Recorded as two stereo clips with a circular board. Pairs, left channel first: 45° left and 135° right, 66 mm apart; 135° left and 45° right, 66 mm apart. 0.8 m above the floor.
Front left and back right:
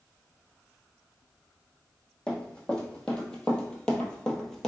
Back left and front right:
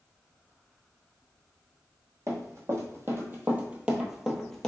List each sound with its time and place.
2.3 s running footsteps: 25° right, 1.3 m; by 4.7 s 100° left, 0.8 m